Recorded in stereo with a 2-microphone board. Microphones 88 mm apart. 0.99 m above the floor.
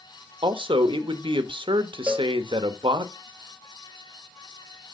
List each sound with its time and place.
0.4 s a man speaking: 75° right (ahead or behind), 1.0 m
2.1 s a cowbell: 25° right (ahead or behind), 1.4 m